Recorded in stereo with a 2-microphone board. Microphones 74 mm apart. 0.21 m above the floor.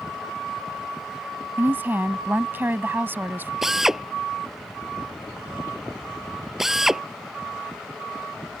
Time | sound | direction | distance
1.6 | a woman speaking | 30° right (ahead or behind) | ?
3.6 | a drill | 5° right (ahead or behind) | ?